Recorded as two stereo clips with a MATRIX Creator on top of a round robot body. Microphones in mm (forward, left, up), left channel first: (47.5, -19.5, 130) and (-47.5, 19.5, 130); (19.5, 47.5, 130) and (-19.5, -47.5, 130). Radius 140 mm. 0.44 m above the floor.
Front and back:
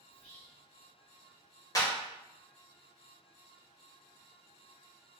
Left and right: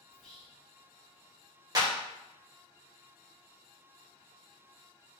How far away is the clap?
About 1.2 m.